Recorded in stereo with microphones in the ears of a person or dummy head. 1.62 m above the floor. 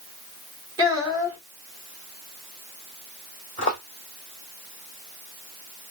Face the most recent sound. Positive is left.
turn(degrees=30)  # may be behind; listen again after turning